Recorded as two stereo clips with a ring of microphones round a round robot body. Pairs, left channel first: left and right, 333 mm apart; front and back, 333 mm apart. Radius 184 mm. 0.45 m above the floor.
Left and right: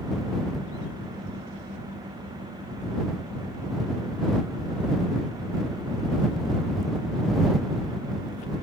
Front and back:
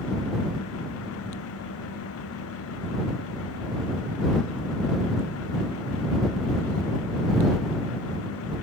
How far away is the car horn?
I don't hear a car horn.